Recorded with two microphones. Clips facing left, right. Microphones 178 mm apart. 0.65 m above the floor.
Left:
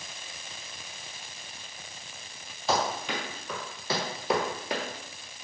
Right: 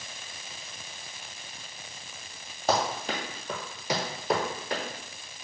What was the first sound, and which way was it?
Running footsteps, 55° right (ahead or behind).